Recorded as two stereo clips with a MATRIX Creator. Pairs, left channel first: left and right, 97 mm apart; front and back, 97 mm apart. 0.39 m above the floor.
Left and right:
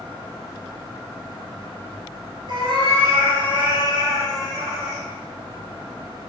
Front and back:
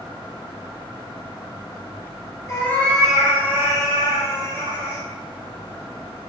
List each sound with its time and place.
2.5 s a cat meowing: 60° right, 0.8 m; by 5.0 s 155° right, 1.4 m